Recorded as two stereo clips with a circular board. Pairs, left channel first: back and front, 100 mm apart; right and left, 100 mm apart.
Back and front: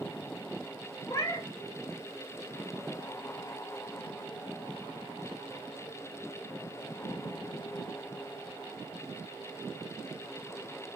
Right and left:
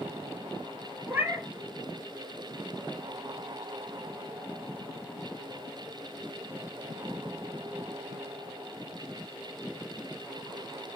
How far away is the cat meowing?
About 0.7 m.